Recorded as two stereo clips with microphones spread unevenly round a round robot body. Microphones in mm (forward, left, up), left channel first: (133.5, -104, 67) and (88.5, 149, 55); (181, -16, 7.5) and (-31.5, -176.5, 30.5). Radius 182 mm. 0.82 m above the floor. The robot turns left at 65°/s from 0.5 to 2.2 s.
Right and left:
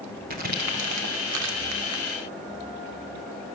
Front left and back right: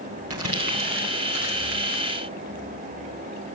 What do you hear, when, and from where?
0.3 s crumpling: 165° left, 1.7 m; by 2.0 s 65° left, 1.7 m